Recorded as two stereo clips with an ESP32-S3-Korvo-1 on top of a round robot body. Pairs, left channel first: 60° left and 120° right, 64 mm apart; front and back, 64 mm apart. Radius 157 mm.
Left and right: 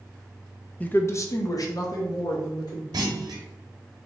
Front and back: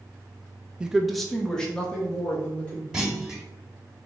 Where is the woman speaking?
115° left, 0.6 m; by 2.8 s 70° left, 1.8 m.